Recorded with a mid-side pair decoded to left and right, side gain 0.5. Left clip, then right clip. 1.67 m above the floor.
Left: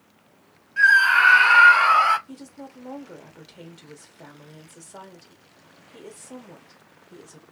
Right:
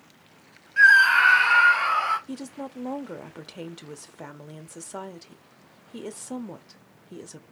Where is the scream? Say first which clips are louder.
Even; 20° right, 0.5 m; by 2.2 s 55° left, 1.0 m.